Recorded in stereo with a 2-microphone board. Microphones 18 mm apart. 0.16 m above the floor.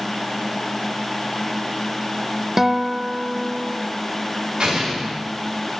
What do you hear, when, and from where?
2.6 s a guitar: 15° right (ahead or behind), 0.9 m
4.6 s an explosion: 60° right (ahead or behind), 10 m